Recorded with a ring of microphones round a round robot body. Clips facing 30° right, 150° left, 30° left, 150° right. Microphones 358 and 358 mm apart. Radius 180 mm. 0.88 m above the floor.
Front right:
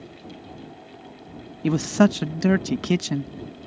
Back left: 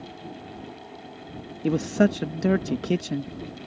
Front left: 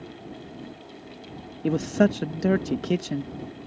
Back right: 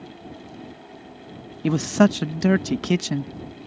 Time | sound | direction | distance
1.6 | a man speaking | 90° right | ?